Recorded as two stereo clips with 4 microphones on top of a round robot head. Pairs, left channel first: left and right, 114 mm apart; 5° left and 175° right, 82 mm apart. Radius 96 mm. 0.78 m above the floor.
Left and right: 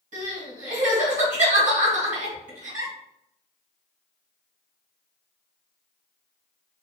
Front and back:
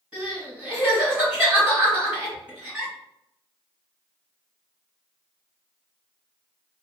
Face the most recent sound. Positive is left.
turn(degrees=-95)